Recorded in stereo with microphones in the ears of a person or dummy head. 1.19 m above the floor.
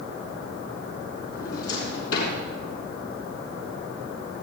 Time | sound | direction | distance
1.3 | a drawer | 80° left | 5 m